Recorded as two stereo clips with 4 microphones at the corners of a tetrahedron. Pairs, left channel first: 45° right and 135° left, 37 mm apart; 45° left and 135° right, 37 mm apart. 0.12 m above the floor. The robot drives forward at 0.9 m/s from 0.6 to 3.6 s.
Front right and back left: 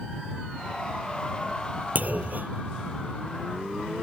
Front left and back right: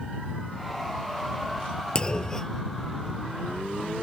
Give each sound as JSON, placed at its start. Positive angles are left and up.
{"t": 1.9, "sound": "a clunk", "azimuth_deg": 105}